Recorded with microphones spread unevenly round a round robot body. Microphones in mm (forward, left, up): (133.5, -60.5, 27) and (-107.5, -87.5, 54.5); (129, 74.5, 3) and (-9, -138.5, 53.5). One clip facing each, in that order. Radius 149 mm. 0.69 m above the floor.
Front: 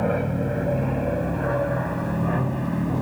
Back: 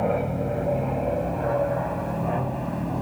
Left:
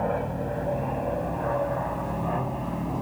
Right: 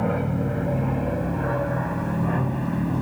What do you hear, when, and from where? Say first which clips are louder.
0.0 s an aircraft: front 1 dB, right 4 dB; 65° right; by 3.0 s 60° right